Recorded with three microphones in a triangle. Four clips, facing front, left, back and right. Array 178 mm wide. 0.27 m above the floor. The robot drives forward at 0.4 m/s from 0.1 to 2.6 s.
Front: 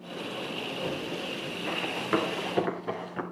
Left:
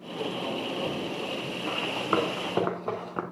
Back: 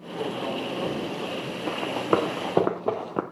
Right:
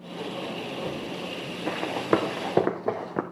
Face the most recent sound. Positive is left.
turn(degrees=-140)